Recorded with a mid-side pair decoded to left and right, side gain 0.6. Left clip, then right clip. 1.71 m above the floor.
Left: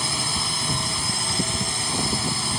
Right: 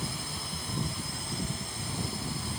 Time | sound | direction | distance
0.0 | a drone | 55° left | ?